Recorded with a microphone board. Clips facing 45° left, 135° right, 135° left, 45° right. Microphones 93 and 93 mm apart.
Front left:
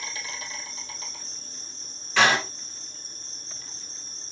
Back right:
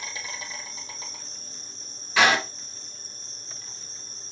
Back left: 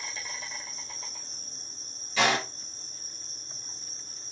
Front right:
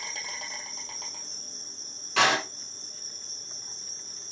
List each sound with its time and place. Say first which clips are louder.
0.0 s an insect: even, front right 1 dB; 70° right, 3 m
2.2 s a door slam: even, front right 2 dB; 50° right, 3.5 m